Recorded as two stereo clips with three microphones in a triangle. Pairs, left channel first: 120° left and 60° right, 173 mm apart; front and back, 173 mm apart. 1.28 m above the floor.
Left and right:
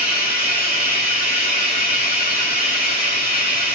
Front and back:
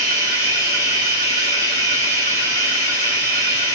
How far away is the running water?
About 2.5 m.